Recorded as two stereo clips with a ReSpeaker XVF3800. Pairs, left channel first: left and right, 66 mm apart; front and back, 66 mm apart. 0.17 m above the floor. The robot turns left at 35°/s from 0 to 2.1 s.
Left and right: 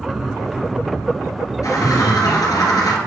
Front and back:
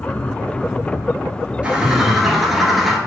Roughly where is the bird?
Left.